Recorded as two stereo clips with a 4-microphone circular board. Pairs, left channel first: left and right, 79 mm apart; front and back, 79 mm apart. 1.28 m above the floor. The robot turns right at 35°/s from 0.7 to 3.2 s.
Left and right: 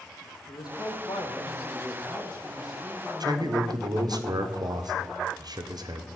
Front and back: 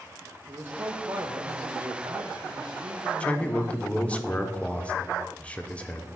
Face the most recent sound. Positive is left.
turn(degrees=-70)